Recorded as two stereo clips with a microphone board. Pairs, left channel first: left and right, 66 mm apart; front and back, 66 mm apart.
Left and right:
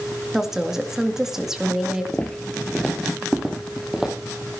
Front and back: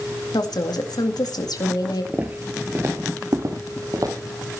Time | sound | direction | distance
0.3 | a woman speaking | 5° right | 2 m
2.1 | footsteps | 140° left | 1.4 m